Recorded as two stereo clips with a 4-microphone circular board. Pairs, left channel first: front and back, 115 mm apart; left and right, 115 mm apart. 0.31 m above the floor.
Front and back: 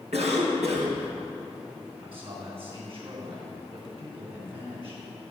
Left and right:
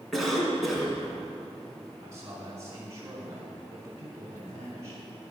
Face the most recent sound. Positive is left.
turn(degrees=-150)